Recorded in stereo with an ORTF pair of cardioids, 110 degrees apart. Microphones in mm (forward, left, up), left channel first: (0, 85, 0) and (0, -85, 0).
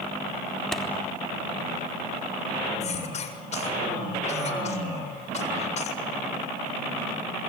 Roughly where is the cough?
Ahead left.